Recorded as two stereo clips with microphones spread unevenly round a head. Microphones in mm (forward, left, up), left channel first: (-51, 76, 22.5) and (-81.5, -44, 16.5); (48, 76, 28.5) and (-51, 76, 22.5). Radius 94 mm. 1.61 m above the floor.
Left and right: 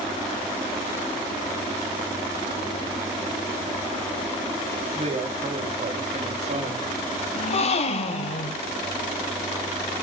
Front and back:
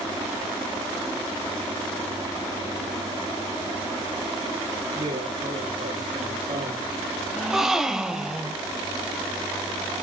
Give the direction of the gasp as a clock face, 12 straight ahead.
9 o'clock.